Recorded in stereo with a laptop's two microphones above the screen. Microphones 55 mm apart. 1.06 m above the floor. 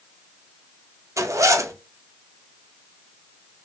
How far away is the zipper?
About 0.5 m.